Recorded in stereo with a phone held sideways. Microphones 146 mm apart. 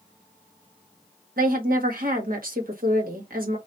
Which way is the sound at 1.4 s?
80° right.